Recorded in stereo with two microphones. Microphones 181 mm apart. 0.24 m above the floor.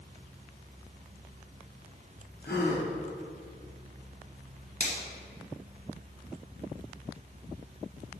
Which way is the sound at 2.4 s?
70° left (ahead or behind).